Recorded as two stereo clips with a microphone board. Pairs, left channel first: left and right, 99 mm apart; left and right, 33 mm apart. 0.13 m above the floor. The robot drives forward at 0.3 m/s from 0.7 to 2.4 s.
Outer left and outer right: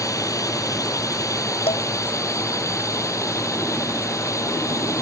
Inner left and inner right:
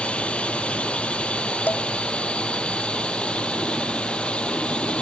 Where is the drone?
35° left (ahead or behind); by 5.0 s 30° left (ahead or behind).